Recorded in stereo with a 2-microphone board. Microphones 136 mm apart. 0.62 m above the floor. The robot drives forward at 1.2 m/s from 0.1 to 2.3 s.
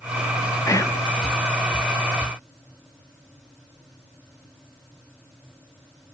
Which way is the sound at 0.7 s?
25° left (ahead or behind).